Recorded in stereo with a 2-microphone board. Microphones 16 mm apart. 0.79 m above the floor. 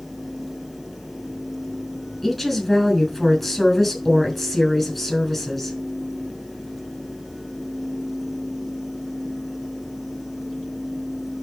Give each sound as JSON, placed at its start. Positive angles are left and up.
{"t": 2.2, "sound": "a woman speaking", "side_deg": 5, "distance_m": 6.5}